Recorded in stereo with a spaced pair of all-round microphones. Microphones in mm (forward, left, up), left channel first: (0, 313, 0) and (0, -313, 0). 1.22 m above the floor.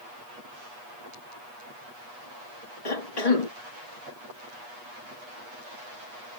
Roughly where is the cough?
Left.